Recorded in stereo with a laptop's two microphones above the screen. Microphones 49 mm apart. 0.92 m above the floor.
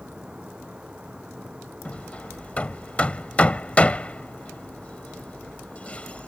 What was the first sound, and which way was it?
A fan, 15° right (ahead or behind).